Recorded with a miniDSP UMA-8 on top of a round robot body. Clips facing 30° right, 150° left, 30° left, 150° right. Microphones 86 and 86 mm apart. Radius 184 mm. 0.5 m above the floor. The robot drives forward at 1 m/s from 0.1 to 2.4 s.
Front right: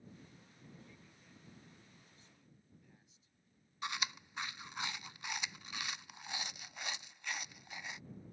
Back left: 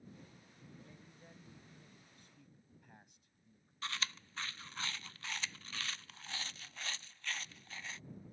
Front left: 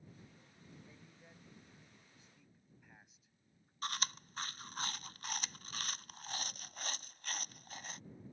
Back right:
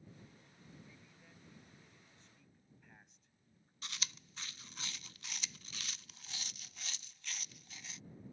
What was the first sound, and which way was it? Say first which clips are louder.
A man speaking: back left 3 dB, front left 1 dB; 95° left.